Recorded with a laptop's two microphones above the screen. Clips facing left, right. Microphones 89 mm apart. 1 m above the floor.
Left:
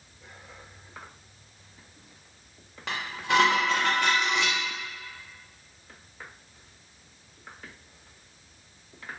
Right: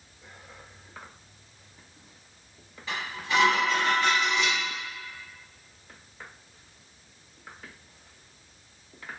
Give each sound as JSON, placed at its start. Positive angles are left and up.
{"t": 2.9, "sound": "dishes clattering", "side_deg": 75, "distance_m": 0.9}